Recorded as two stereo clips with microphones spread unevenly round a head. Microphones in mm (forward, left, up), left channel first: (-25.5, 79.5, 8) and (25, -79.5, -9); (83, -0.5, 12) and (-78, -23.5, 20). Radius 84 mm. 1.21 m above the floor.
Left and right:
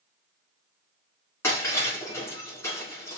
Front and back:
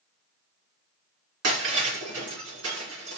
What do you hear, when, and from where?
1.4 s breaking glass: straight behind, 3 m